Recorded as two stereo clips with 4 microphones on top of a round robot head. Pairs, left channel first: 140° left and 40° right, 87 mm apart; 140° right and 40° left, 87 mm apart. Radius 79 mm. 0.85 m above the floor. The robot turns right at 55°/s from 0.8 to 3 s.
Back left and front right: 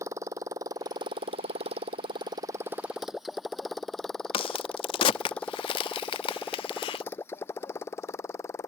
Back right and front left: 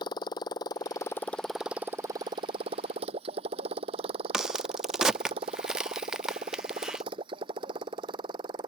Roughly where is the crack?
Behind left.